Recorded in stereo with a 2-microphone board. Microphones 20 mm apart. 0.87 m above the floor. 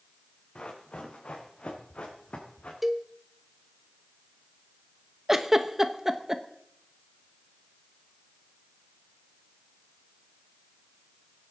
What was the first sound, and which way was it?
Running footsteps, 65° left (ahead or behind).